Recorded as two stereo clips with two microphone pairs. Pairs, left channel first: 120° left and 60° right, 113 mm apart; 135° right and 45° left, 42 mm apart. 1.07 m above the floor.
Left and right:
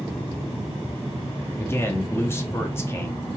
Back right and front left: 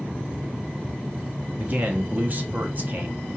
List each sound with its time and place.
1.6 s a man speaking: 55° left, 0.7 m